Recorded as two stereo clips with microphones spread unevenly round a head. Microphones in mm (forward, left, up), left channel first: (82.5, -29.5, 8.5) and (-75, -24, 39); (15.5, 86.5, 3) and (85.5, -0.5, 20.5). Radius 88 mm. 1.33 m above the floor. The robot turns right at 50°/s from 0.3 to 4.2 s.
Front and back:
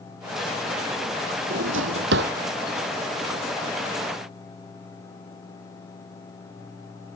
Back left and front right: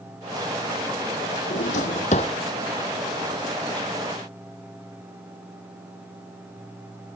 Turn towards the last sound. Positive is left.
turn(degrees=-75)